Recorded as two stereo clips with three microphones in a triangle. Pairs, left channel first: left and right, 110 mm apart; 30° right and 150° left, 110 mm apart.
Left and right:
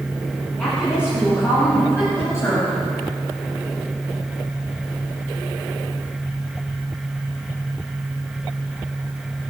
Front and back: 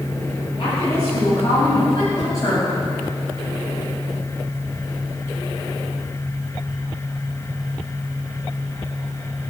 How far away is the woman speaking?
About 7 m.